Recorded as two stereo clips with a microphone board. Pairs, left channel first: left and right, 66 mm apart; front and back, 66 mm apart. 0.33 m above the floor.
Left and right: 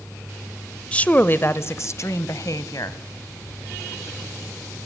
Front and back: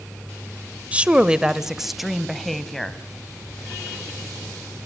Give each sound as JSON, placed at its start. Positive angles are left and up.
{"t": 0.9, "sound": "a woman speaking", "azimuth_deg": 140, "distance_m": 0.9}